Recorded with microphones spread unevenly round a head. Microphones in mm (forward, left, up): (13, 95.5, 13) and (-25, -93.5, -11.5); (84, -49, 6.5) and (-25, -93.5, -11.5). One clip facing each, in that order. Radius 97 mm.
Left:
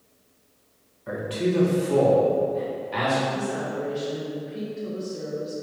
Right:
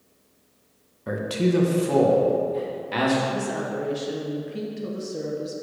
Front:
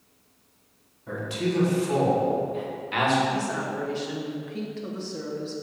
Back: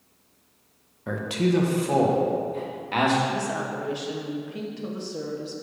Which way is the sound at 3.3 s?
85° right.